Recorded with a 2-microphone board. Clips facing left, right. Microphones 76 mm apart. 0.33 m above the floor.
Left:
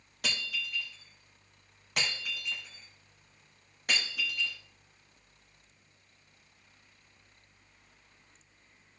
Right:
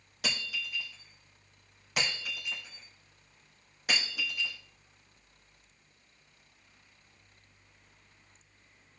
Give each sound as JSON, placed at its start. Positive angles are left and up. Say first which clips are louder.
{"t": 0.2, "sound": "breaking glass", "louder": "even", "side_deg": 0, "distance_m": 2.5}